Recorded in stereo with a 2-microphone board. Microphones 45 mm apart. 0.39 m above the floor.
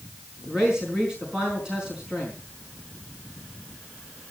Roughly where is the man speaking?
Centre.